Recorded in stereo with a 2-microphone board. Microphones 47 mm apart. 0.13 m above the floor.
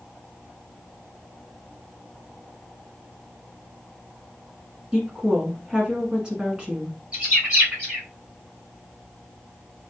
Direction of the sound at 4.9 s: 20° right (ahead or behind).